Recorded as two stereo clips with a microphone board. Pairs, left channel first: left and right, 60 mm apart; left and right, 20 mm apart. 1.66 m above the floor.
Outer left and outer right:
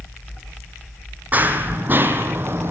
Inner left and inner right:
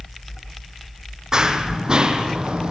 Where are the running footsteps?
30° right (ahead or behind), 3.5 m; by 2.7 s 40° right (ahead or behind), 3 m.